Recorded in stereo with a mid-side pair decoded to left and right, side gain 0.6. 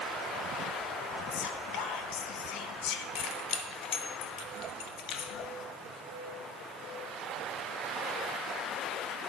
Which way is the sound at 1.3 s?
70° left.